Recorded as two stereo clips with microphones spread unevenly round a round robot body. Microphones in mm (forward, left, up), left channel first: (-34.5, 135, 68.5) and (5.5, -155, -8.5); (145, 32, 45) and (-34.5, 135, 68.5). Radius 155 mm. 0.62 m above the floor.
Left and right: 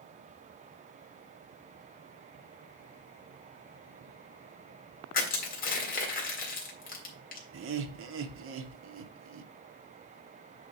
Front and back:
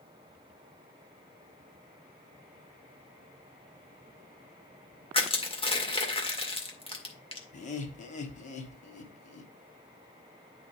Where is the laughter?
75° right, 1.1 m.